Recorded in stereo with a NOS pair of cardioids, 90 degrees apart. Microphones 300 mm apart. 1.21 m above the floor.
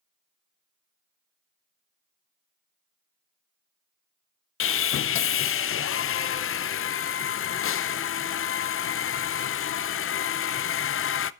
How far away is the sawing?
About 0.6 m.